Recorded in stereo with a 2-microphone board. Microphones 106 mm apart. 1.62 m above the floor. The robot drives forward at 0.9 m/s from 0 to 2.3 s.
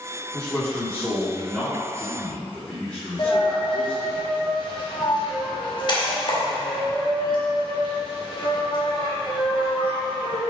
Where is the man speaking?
25° left (ahead or behind), 1.3 m; by 4.2 s 10° left (ahead or behind), 3 m.